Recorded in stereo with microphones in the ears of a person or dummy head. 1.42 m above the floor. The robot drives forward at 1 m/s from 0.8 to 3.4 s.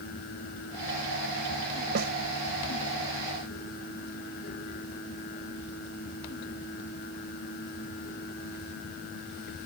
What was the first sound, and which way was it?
A snare drum, 50° right (ahead or behind).